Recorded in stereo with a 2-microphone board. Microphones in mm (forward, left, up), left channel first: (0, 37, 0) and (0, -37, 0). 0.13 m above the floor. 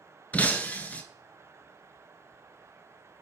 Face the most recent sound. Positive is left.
turn(degrees=20)  # may be behind; listen again after turning